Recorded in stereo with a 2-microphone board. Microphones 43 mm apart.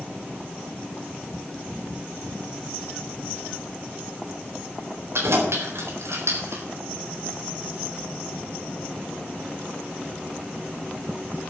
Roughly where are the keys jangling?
Right.